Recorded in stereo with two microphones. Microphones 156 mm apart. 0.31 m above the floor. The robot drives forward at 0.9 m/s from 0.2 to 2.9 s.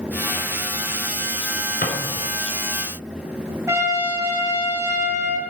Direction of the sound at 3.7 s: 20° right (ahead or behind).